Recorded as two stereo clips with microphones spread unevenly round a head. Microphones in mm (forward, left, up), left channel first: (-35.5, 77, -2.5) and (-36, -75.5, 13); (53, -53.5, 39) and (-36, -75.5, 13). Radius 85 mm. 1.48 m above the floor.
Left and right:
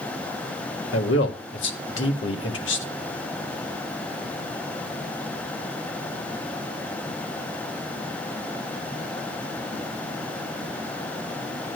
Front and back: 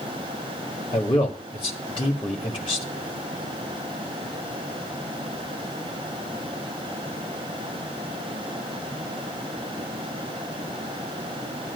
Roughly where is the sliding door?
No sliding door in this recording.